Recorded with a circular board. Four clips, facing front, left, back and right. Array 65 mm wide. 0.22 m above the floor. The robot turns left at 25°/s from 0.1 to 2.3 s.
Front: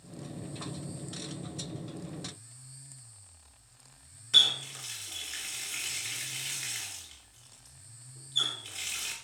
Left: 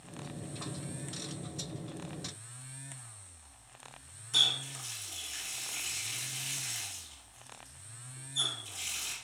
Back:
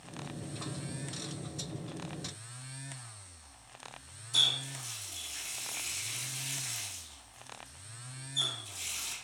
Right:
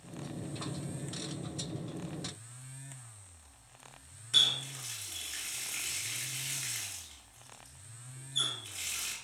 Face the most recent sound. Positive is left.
turn(degrees=-15)